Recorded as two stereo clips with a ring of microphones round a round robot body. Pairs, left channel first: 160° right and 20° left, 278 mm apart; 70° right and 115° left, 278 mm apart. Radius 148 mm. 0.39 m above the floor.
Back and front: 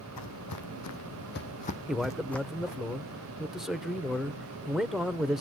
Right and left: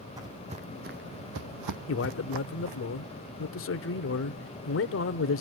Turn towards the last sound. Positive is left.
turn(degrees=-65)